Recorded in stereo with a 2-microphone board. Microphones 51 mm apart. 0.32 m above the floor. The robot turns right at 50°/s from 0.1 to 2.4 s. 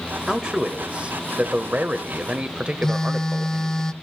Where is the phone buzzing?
10° left (ahead or behind), 0.6 m.